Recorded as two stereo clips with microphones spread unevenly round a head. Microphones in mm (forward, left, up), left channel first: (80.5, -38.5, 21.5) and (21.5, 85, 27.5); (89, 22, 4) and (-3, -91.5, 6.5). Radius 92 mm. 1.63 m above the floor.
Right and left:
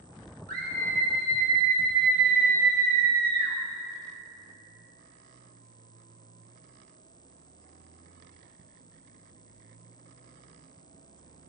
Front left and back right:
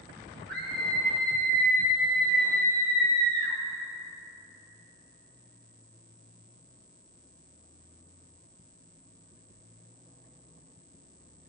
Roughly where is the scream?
Behind left.